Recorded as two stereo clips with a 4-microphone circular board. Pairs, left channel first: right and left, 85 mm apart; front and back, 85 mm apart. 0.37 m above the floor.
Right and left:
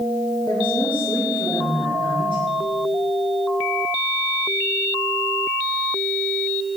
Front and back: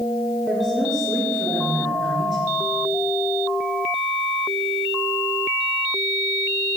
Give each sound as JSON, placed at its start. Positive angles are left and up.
{"t": 0.5, "sound": "a woman speaking", "azimuth_deg": -90, "distance_m": 6.5}